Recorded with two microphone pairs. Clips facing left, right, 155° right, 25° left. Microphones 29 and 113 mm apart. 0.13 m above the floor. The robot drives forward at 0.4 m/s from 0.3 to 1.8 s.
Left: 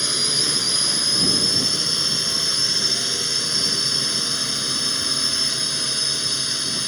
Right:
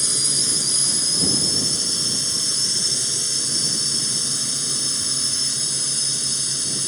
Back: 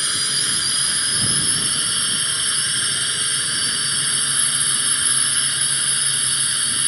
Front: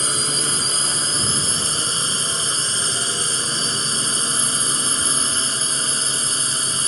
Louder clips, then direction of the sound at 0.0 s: Left 2 dB, front 5 dB; 40° left.